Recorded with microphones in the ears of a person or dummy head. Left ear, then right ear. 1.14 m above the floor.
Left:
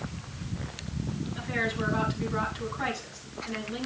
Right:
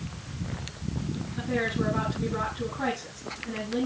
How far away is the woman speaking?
About 9 m.